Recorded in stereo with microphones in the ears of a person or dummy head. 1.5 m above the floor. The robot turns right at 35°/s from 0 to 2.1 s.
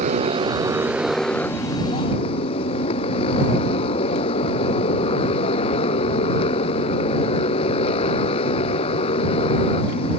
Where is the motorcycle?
40° right; by 10.2 s 30° left.